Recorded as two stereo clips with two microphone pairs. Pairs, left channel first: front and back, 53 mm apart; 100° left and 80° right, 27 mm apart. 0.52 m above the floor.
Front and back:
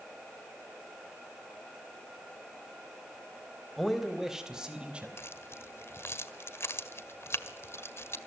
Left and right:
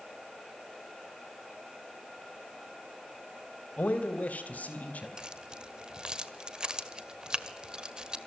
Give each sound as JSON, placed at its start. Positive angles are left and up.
{"t": 3.8, "sound": "a man speaking", "azimuth_deg": 90, "distance_m": 3.0}
{"t": 5.2, "sound": "keys jangling", "azimuth_deg": -30, "distance_m": 1.4}